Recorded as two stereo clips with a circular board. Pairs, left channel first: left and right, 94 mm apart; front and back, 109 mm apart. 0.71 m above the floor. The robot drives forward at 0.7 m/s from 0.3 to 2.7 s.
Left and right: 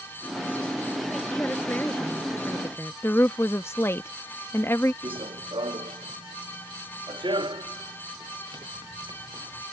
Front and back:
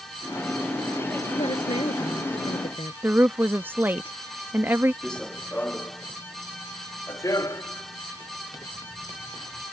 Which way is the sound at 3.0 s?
125° left.